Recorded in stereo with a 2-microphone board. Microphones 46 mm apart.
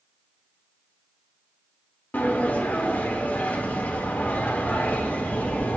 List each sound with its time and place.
2.1 s a sliding door: 35° left (ahead or behind), 1.0 m